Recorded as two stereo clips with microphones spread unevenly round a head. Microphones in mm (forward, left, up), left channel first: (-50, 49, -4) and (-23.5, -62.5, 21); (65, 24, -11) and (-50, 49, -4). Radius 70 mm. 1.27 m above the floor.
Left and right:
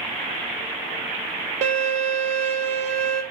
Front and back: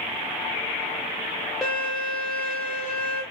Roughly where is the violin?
Right.